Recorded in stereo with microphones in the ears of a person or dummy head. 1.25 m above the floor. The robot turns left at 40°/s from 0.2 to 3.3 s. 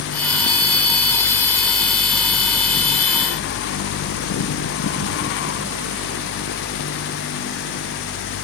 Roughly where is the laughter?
I don't hear laughter.